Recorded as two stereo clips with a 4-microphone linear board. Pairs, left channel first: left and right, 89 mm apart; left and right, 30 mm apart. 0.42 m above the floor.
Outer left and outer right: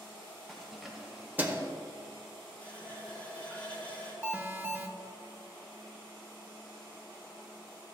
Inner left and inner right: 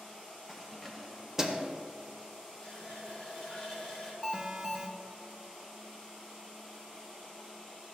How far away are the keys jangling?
About 1.5 m.